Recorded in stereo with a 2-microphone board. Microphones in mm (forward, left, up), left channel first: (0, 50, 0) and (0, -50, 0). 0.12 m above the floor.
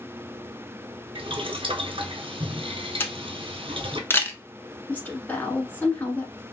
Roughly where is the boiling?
Right.